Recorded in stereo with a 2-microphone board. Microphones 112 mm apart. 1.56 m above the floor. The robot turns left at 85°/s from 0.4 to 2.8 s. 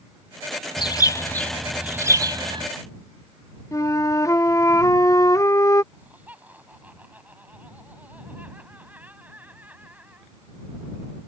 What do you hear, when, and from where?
0.8 s a bird: 75° left; by 2.7 s 90° right
3.7 s a flute: 25° left (ahead or behind)
5.9 s laughter: 15° right (ahead or behind)